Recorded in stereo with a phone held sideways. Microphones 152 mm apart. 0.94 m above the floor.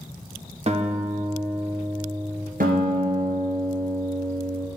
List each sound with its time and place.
0.7 s a guitar: 45° right (ahead or behind), 0.7 m
2.6 s a guitar: 70° right (ahead or behind), 2 m